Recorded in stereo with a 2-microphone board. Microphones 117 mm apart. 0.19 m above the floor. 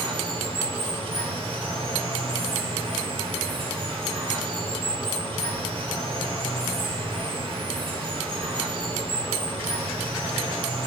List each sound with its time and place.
0.0 s running water: 50° right (ahead or behind), 1.2 m